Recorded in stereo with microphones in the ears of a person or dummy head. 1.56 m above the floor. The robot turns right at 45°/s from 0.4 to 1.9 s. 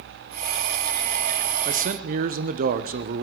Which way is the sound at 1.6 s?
35° right (ahead or behind).